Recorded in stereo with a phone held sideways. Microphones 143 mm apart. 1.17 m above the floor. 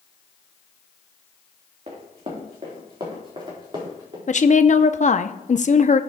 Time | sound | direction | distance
1.9 | running footsteps | 45° right (ahead or behind) | 3.5 m
4.3 | a woman speaking | 55° left (ahead or behind) | 0.6 m